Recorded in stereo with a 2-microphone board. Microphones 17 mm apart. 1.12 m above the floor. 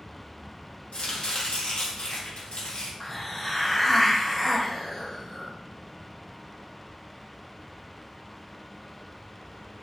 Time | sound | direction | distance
0.9 | chopping | 85° left | 1.4 m
3.0 | a hiss | 15° left (ahead or behind) | 0.7 m